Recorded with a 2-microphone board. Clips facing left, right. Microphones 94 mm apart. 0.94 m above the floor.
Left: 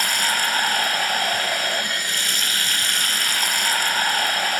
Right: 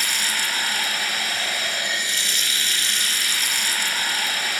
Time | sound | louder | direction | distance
0.0 | running water | left 5 dB | 50° left (ahead or behind) | 2 m